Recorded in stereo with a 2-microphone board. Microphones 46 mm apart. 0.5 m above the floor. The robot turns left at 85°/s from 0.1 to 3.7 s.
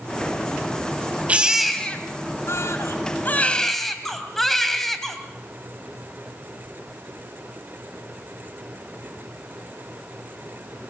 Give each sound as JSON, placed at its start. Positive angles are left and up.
{"t": 1.3, "sound": "a baby crying", "azimuth_deg": -150, "distance_m": 3.0}